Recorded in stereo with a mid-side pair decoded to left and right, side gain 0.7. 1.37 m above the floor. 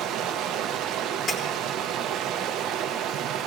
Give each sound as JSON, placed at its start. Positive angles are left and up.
{"t": 0.0, "sound": "running water", "azimuth_deg": -55, "distance_m": 0.7}
{"t": 1.3, "sound": "breaking glass", "azimuth_deg": 30, "distance_m": 1.7}